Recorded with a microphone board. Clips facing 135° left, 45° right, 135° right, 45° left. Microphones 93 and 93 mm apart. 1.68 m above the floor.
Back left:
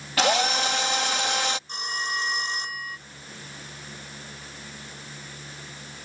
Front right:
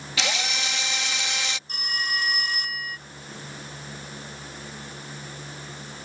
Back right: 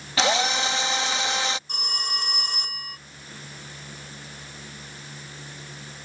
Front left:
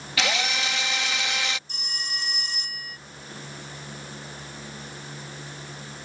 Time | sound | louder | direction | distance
0.2 | a drill | back left 8 dB, back right 5 dB | 170° left | ?
1.7 | a phone ringing | even, back right 4 dB | 165° right | ?